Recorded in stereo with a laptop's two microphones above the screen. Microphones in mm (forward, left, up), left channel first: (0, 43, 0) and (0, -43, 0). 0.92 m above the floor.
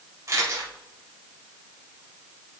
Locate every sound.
0.3 s a camera shutter: 40° right (ahead or behind), 3 m